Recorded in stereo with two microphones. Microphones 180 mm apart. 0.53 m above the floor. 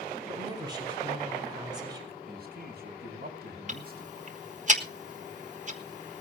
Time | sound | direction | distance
0.3 | a woman speaking | 25° right (ahead or behind) | 4.5 m
2.3 | a man speaking | 65° right (ahead or behind) | 4.5 m
3.7 | ticking | 45° right (ahead or behind) | 1.4 m